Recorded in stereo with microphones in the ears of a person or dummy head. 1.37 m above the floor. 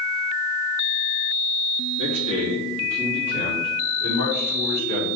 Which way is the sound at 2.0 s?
85° right.